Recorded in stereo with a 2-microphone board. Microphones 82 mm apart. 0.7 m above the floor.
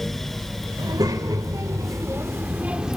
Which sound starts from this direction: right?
A child speaking, at 0.8 s.